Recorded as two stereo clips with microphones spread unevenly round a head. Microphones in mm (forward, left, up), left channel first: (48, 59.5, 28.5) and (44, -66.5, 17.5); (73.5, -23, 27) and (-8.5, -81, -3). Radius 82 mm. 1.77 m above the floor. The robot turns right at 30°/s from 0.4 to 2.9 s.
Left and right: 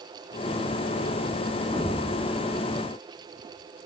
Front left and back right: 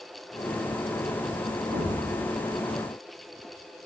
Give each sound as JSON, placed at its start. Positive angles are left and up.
{"t": 1.7, "sound": "an explosion", "azimuth_deg": -170, "distance_m": 1.8}